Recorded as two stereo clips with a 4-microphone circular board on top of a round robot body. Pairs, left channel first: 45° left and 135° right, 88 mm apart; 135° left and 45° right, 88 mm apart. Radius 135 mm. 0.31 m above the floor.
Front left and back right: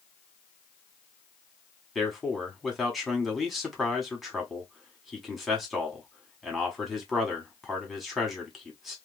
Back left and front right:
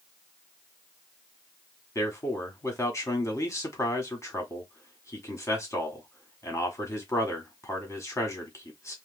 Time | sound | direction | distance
1.9 | a man speaking | 135° left | 1.5 m